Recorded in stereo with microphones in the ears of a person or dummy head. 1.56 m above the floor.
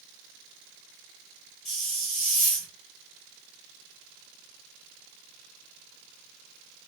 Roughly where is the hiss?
Centre.